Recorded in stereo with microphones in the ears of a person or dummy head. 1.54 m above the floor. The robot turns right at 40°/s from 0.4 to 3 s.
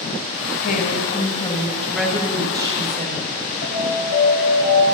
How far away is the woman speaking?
About 1.6 m.